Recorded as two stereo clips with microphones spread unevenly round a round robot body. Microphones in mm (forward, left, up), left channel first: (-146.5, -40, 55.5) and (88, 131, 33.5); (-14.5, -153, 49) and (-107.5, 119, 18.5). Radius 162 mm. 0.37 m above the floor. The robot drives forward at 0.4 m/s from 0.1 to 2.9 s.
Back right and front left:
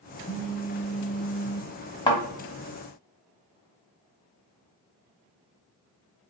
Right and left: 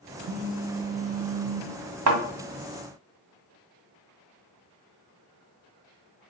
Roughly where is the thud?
Behind left.